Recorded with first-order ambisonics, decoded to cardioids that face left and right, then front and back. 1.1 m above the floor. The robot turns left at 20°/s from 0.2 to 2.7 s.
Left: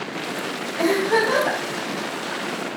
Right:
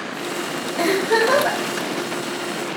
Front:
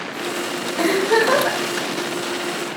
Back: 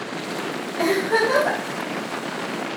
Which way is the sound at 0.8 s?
50° right.